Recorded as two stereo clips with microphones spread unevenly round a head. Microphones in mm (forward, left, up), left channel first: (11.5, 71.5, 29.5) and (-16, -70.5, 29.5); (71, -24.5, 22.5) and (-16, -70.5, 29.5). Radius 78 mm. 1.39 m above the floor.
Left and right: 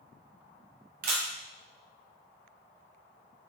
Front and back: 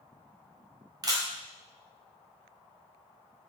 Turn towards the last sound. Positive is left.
turn(degrees=-105)